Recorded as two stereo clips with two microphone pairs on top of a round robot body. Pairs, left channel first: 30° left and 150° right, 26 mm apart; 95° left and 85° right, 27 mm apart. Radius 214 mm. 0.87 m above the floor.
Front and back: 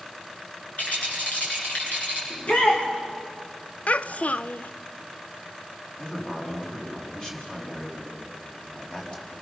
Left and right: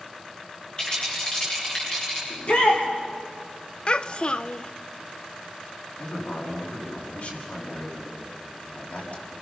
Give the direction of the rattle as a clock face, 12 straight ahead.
11 o'clock.